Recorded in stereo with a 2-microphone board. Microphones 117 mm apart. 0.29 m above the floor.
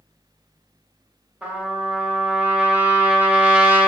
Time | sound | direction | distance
1.4 | a trumpet | 15° right (ahead or behind) | 0.7 m